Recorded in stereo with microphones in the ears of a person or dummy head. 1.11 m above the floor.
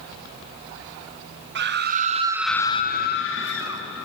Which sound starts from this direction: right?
A scream, at 1.6 s.